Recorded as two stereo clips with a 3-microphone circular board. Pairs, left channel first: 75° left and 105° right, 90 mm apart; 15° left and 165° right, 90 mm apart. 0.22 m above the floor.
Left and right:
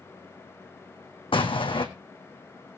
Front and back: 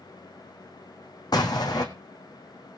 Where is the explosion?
60° left, 1.9 m.